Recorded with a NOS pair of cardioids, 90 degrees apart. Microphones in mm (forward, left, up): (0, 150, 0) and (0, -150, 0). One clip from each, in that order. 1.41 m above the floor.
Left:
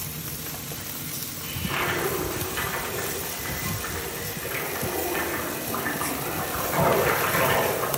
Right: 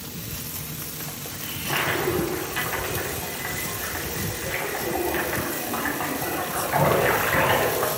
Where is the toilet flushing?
60° right, 5 m.